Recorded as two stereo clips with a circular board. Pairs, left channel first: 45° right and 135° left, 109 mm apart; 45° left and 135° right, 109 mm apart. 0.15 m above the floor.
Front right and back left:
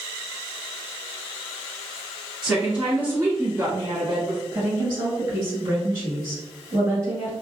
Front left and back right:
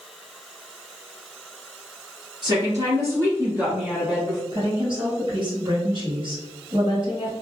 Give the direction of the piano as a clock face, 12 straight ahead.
No piano in this recording.